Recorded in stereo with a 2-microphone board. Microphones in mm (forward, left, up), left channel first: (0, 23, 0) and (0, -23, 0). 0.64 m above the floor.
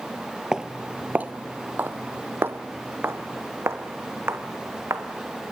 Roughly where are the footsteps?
Centre.